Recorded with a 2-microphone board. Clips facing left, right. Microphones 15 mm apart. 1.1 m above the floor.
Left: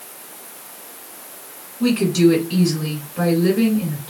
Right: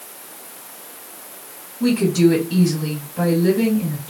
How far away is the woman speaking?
About 2 m.